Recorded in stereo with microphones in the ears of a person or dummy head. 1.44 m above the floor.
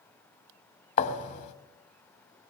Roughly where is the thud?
Left.